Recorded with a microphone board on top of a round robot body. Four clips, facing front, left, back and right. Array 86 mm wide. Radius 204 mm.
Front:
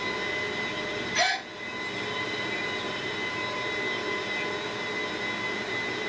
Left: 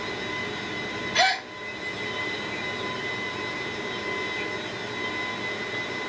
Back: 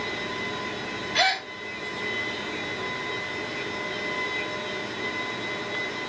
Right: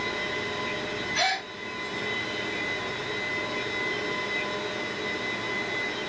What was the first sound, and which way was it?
A gasp, 135° left.